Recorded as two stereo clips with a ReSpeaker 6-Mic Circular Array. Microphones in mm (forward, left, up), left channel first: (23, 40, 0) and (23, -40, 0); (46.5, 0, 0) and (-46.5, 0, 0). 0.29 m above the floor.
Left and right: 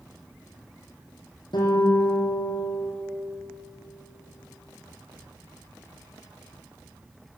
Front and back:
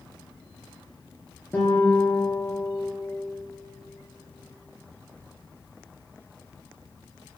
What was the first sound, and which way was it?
A guitar, 70° left.